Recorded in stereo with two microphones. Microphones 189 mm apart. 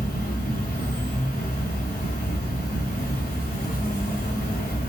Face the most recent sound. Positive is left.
turn(degrees=55)  # may be behind; listen again after turning